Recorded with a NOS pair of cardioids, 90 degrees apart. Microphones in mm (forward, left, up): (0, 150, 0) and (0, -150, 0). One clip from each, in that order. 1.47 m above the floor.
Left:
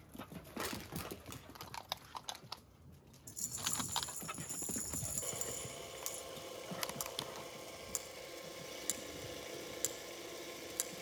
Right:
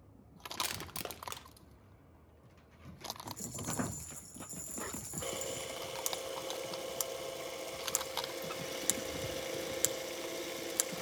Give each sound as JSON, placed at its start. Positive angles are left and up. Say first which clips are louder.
{"t": 0.6, "sound": "crushing", "louder": "right 4 dB", "azimuth_deg": -35, "distance_m": 0.8}
{"t": 3.3, "sound": "a rattle", "louder": "even", "azimuth_deg": 20, "distance_m": 0.8}
{"t": 5.2, "sound": "a camera shutter", "louder": "right 5 dB", "azimuth_deg": -35, "distance_m": 0.8}